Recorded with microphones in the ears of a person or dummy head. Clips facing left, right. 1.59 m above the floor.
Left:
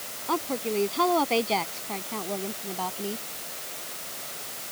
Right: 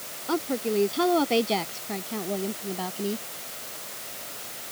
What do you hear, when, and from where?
0.3 s a woman speaking: 10° right (ahead or behind); by 3.3 s 15° right (ahead or behind)